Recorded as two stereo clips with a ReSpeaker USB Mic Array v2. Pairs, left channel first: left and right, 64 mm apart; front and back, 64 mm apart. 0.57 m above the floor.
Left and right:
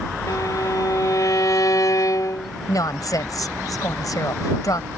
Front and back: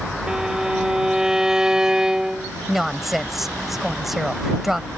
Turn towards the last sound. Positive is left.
turn(degrees=95)